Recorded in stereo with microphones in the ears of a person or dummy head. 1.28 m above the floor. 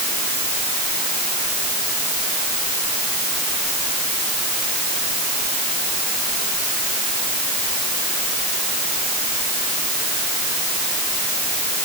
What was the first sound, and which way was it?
Only background noise.